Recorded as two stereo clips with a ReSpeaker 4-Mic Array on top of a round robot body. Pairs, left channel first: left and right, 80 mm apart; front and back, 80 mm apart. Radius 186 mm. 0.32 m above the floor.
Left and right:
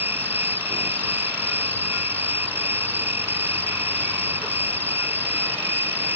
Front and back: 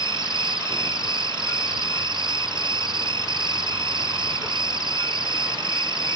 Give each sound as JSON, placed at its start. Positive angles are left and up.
{"t": 0.0, "sound": "an insect", "azimuth_deg": -155}